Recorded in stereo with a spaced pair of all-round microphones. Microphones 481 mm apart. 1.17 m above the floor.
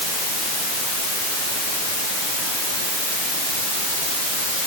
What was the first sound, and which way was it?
Only background noise.